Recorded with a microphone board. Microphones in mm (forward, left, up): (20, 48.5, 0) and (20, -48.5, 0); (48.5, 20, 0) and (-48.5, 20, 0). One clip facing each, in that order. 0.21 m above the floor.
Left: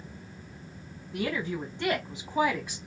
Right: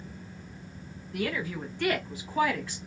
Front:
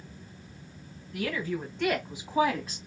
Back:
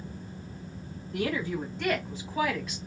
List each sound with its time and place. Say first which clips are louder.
1.1 s a woman speaking: left 1 dB, back 2 dB; 145° left, 1.1 m; by 2.8 s 25° left, 1.3 m